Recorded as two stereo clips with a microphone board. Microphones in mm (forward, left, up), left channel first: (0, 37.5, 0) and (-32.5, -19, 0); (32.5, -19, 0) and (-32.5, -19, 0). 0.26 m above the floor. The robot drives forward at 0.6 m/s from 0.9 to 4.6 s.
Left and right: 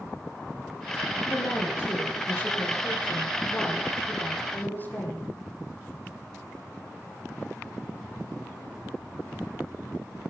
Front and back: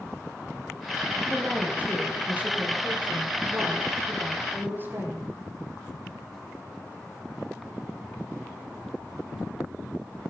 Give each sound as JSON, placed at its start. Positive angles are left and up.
{"t": 1.3, "sound": "a woman speaking", "azimuth_deg": 110, "distance_m": 9.0}